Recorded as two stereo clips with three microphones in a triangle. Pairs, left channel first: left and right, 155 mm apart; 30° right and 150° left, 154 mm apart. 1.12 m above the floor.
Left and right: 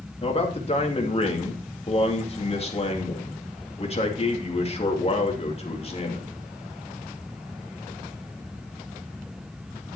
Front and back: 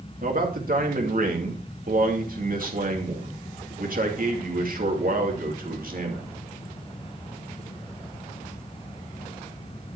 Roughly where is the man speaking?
Behind left.